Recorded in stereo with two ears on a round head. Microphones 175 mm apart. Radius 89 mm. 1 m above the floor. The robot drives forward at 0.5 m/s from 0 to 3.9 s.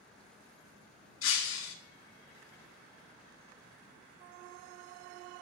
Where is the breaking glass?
70° left (ahead or behind), 2.5 m; by 1.8 s 75° left (ahead or behind), 2.5 m.